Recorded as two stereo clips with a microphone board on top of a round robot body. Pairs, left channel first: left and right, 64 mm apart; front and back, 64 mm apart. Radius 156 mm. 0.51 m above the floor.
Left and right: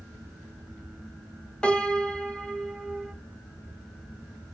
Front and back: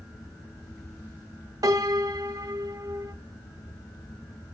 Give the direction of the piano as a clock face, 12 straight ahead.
7 o'clock.